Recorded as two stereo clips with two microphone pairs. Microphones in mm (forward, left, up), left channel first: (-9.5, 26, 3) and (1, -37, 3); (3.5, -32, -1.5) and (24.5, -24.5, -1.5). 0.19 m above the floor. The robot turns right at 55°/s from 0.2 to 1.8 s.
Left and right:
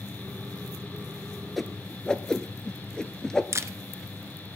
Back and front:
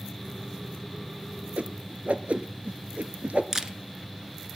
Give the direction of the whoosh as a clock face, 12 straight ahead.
12 o'clock.